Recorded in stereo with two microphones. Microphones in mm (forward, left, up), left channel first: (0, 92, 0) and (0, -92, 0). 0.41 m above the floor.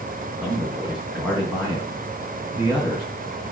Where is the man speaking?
5° right (ahead or behind), 3.5 m.